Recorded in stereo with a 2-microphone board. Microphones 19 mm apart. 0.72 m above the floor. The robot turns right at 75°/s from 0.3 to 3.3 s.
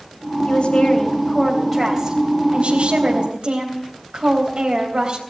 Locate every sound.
0.5 s a woman speaking: 80° left, 3.5 m; by 5.2 s 65° right, 3.5 m